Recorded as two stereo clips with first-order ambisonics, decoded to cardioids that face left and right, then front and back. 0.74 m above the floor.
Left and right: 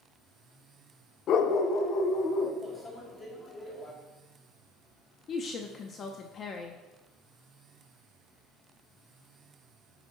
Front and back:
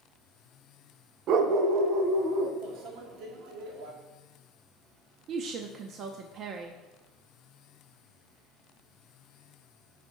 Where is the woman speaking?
145° left, 0.7 m.